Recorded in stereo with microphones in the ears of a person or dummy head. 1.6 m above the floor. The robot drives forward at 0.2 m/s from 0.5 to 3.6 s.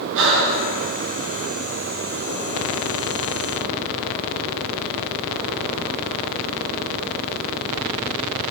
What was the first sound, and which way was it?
Breathing, 70° right (ahead or behind).